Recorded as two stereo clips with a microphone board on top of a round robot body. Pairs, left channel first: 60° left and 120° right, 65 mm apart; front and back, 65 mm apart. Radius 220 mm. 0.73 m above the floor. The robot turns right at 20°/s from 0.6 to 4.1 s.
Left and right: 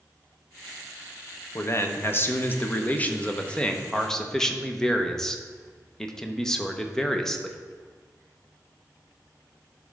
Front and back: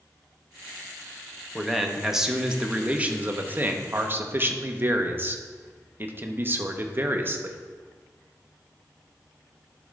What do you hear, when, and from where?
1.6 s a man speaking: 90° left, 1.0 m; by 7.6 s 140° left, 1.0 m